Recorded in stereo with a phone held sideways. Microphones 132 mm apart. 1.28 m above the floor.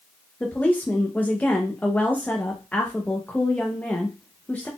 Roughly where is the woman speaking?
Centre.